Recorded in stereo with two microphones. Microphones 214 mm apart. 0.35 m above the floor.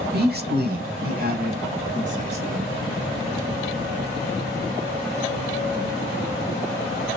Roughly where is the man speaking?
Right.